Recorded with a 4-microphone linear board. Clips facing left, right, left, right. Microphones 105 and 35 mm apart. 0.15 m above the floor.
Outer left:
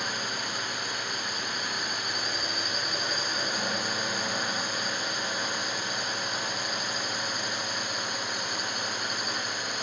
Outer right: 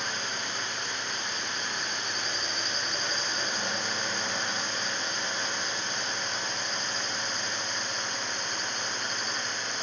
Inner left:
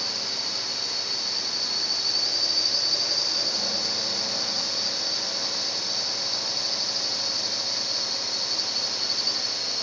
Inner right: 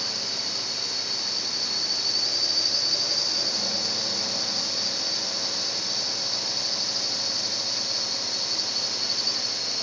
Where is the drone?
5° left (ahead or behind).